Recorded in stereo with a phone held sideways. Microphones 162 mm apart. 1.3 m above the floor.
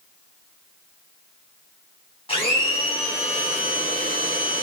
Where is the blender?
40° left (ahead or behind), 6 m.